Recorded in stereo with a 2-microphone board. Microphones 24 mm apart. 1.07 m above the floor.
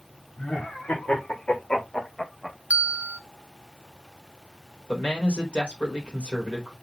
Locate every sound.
0.4 s laughter: 80° left, 4 m; by 2.6 s 15° left (ahead or behind), 1.6 m
2.7 s a bell: 65° right (ahead or behind), 0.5 m
4.9 s a man speaking: 65° left (ahead or behind), 3.5 m